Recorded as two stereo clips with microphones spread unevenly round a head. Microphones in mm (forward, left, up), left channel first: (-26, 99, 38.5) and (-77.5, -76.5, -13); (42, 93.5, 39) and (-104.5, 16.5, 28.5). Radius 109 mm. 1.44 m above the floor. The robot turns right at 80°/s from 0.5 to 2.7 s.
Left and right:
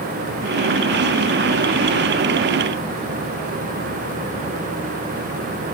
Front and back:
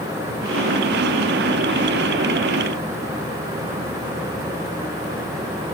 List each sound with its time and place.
Only background noise.